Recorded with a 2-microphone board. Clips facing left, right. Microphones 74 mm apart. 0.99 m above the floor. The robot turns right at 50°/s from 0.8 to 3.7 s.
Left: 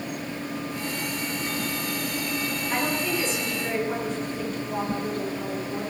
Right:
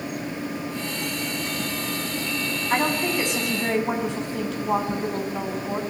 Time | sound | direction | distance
2.7 | a woman speaking | 145° right | 7.5 m